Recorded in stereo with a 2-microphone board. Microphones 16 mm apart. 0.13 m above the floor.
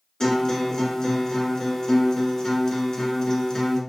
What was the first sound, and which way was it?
A guitar, 40° left (ahead or behind).